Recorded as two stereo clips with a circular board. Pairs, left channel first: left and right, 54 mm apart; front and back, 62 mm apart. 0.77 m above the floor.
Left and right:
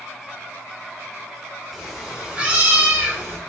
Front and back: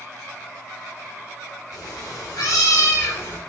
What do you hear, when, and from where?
1.7 s a cat meowing: 5° right, 1.3 m; by 3.4 s 50° right, 1.1 m